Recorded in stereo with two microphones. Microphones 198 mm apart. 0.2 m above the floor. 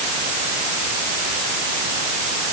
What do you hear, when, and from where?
Only background noise.